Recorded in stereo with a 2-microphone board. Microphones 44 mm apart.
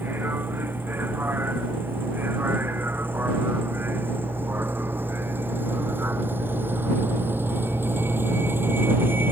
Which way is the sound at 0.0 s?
55° right (ahead or behind).